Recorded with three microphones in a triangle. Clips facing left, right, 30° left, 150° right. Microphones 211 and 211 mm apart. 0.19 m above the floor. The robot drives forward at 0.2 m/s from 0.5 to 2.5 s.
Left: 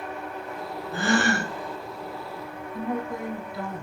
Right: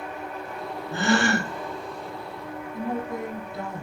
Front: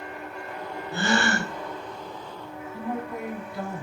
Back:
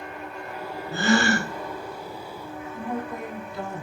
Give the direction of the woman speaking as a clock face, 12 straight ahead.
1 o'clock.